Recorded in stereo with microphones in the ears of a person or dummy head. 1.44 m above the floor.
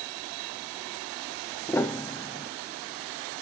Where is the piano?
10° left (ahead or behind), 0.5 m.